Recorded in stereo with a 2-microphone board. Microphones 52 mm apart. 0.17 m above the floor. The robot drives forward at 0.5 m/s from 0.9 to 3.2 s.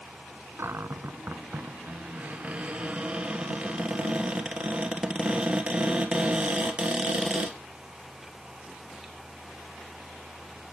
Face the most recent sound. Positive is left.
turn(degrees=-20)  # may be behind; listen again after turning